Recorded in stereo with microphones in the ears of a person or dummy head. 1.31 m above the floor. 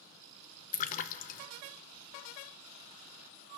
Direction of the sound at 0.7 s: 45° left (ahead or behind).